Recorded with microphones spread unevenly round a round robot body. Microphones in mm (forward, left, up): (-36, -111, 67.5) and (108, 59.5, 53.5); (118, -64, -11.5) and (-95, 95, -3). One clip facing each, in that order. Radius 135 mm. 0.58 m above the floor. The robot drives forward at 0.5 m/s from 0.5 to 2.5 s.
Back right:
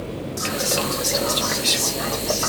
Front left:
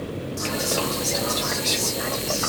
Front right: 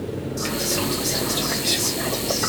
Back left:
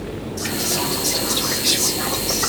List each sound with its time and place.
0.4 s whispering: 90° right, 0.8 m; by 2.5 s 165° right, 1.3 m